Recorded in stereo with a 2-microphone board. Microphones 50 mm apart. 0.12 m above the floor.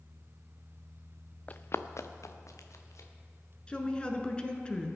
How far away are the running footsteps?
About 0.6 m.